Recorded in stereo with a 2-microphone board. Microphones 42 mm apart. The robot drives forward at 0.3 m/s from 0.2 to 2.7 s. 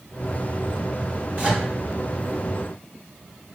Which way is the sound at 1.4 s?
30° right (ahead or behind).